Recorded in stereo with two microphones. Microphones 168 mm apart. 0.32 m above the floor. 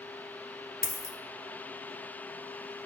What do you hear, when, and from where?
0.8 s a dropped coin: 65° left (ahead or behind), 1.3 m